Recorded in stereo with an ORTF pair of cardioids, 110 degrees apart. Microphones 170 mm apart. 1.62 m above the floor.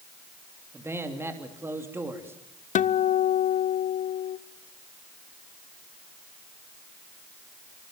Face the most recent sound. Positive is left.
turn(degrees=45)